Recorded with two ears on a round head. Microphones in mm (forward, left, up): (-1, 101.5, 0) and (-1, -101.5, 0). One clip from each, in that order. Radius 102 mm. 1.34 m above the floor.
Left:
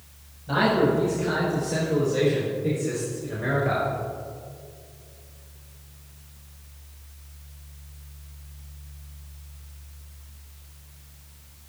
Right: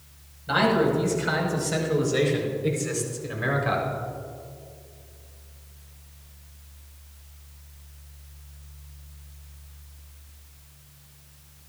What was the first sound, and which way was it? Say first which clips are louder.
A man speaking: even; 60° right (ahead or behind).